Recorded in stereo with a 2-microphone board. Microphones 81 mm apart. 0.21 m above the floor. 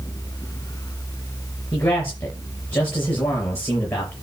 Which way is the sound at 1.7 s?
30° left (ahead or behind).